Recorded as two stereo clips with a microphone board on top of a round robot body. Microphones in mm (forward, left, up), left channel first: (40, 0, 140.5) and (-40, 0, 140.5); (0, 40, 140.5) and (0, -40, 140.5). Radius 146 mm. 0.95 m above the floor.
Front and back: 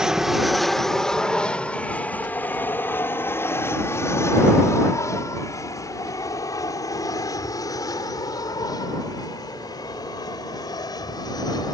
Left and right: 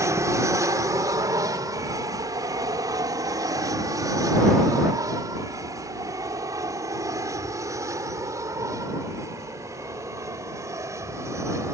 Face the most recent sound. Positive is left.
turn(degrees=-35)